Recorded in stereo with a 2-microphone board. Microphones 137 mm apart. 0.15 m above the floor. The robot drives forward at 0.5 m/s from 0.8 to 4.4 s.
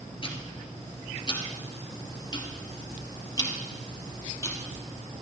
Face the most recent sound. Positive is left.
turn(degrees=25)  # may be behind; listen again after turning